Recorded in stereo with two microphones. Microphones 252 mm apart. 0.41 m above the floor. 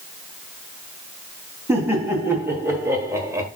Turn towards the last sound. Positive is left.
turn(degrees=-10)  # may be behind; listen again after turning